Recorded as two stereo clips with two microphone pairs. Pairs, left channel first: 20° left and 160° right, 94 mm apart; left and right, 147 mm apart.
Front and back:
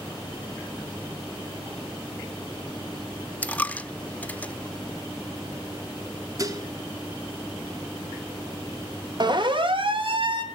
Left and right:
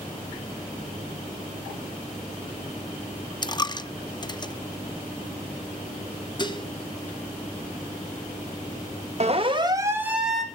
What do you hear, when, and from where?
3.4 s a dropped coin: 80° left, 0.7 m
6.4 s dishes clattering: 150° left, 1.6 m
9.2 s a siren: 130° right, 2 m; by 10.4 s straight behind, 2.5 m